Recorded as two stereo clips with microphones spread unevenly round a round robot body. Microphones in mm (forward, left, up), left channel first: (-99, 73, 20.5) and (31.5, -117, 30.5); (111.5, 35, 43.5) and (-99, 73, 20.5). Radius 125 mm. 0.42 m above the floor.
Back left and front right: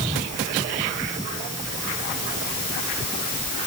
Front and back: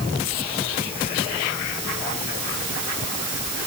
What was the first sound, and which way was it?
Only background noise.